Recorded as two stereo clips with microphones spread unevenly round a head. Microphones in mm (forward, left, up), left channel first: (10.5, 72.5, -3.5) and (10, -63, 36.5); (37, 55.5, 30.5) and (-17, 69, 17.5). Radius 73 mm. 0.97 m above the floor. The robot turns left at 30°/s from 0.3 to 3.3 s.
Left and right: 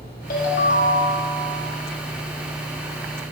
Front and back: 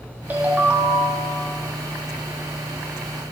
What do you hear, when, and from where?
0.3 s a ringtone: 105° left, 1.4 m; by 1.4 s 75° left, 1.4 m